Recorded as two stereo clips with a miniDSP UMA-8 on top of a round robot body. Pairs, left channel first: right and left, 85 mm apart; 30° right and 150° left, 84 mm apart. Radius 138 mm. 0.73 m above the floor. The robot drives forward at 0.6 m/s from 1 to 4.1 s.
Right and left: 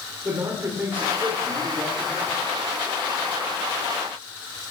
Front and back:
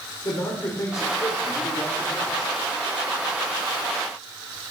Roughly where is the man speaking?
Ahead left.